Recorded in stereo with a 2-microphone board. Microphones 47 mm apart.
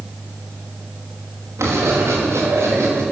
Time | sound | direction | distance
1.6 | writing | 80° right | 5 m